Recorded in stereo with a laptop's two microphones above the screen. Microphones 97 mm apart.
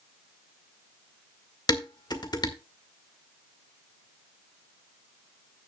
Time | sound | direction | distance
1.7 | dishes clattering | 45° left (ahead or behind) | 1.8 m